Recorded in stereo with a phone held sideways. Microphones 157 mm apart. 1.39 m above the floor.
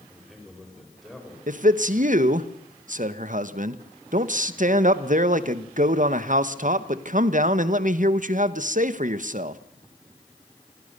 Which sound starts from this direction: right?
A man speaking, at 1.5 s.